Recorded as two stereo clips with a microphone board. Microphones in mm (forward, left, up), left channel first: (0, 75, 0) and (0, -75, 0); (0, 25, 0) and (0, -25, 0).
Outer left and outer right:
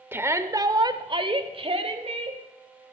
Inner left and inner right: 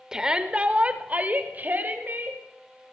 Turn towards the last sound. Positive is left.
turn(degrees=-45)  # may be behind; listen again after turning